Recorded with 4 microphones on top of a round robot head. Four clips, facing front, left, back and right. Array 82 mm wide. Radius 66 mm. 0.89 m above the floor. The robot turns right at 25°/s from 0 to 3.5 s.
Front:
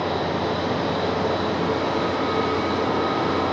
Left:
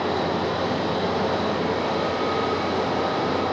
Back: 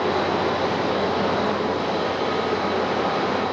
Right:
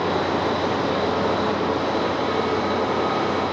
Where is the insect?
115° right, 2.5 m; by 3.5 s 30° right, 2.5 m.